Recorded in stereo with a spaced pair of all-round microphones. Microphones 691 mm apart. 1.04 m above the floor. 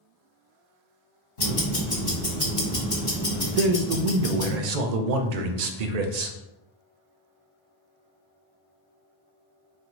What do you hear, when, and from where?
1.4 s ticking: 75° left (ahead or behind), 1.3 m
3.6 s a man speaking: 70° right (ahead or behind), 0.5 m